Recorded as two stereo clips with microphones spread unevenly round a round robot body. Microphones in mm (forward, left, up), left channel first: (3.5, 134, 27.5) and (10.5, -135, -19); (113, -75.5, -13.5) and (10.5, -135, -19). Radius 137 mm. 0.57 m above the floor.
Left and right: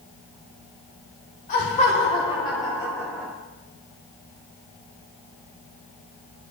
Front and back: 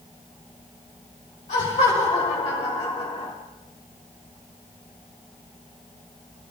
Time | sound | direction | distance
1.5 | laughter | 30° left | 2.5 m